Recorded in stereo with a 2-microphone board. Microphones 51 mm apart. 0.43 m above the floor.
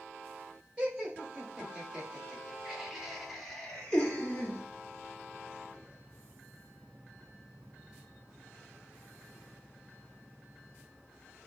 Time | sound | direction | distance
0.8 | laughter | 20° right (ahead or behind) | 2.0 m